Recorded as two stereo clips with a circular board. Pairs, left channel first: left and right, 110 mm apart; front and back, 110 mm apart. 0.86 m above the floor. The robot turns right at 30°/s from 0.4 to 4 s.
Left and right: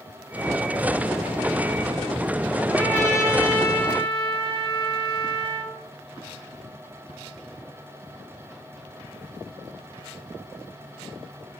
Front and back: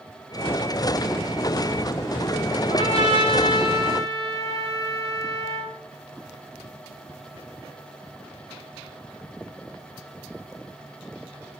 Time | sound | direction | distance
2.7 | a trumpet | 15° left | 3 m